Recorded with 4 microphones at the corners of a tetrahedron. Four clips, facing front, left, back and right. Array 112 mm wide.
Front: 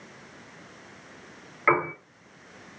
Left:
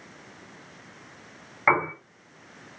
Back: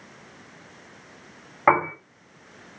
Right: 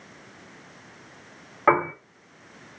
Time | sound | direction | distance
1.7 | a piano | 150° right | 2.5 m